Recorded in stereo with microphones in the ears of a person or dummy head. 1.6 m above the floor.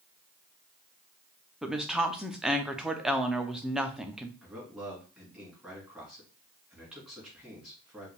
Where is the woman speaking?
5° right (ahead or behind), 0.6 m.